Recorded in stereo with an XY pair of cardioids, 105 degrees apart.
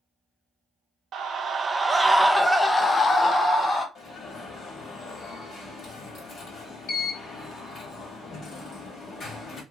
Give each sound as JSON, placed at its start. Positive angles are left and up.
{"t": 1.1, "sound": "a scream", "azimuth_deg": -60, "distance_m": 0.7}
{"t": 4.0, "sound": "an alarm", "azimuth_deg": 55, "distance_m": 1.3}